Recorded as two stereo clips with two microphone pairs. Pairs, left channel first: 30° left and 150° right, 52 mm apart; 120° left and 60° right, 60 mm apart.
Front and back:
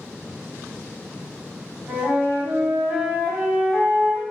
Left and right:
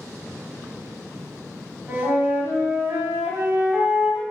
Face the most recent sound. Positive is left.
turn(degrees=-115)